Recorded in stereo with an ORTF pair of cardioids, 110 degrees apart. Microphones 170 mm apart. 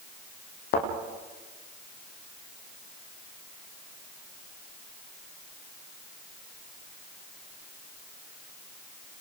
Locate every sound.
0.7 s a thud: 65° left, 8.5 m